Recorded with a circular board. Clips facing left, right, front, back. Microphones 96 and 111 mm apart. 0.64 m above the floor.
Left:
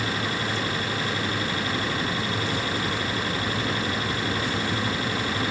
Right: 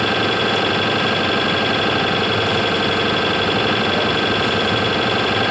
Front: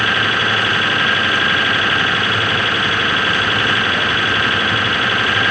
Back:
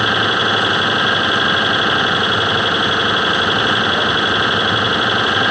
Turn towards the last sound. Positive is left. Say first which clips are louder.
# right 10 dB, back 2 dB
turn(degrees=-110)